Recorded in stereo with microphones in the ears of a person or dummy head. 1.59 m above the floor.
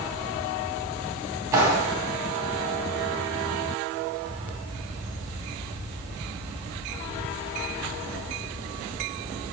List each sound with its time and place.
1.5 s a clap: 20° right (ahead or behind), 4.5 m